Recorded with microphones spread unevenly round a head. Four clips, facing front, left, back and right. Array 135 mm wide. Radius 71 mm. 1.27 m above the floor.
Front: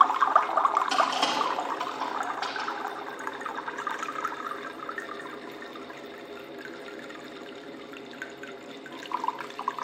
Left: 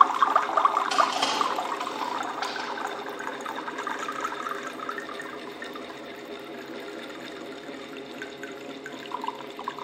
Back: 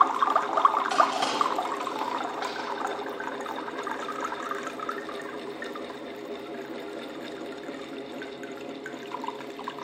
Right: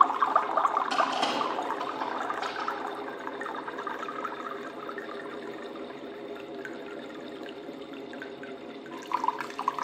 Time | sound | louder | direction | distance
0.9 | crushing | left 3 dB, back 1 dB | 155° right | 4 m